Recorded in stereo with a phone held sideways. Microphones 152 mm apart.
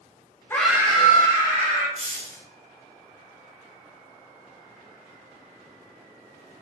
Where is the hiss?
50° left (ahead or behind), 1.3 m.